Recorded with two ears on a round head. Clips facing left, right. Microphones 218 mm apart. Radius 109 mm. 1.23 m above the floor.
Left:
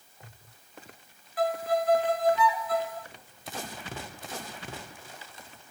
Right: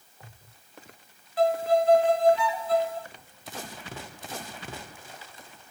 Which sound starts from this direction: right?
A violin, at 1.4 s.